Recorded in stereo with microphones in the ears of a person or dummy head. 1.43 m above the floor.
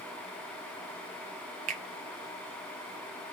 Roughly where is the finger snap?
Right.